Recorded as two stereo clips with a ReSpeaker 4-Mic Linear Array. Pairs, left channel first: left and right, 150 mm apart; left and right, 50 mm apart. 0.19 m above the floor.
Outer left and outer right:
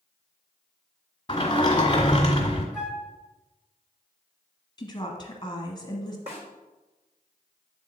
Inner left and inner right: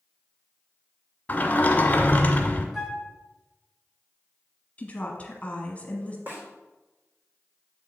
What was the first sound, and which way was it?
A sliding door, 25° left (ahead or behind).